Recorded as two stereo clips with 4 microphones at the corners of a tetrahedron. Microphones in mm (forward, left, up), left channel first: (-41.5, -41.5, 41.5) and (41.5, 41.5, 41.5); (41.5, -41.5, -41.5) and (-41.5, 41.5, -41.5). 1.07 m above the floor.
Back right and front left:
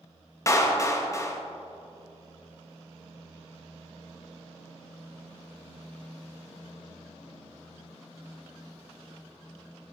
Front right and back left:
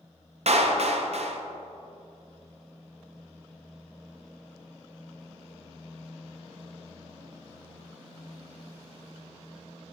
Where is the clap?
160° left, 0.7 m.